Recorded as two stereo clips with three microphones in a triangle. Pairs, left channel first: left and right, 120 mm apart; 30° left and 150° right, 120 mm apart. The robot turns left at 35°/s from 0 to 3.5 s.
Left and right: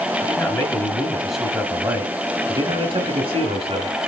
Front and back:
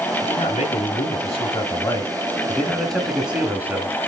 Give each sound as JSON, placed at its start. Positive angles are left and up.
{"t": 0.2, "sound": "a man speaking", "azimuth_deg": 40, "distance_m": 1.4}